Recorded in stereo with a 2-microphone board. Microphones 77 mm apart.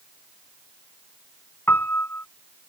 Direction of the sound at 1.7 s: 25° left (ahead or behind).